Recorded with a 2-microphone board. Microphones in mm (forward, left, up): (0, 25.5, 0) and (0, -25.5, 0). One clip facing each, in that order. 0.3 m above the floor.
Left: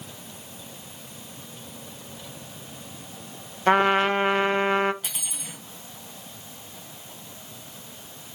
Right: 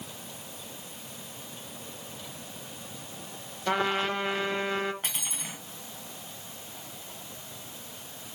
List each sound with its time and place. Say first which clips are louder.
3.7 s a trumpet: left 8 dB; 40° left (ahead or behind), 0.8 m
5.0 s cutlery clinking: right 1 dB; 45° right (ahead or behind), 1.6 m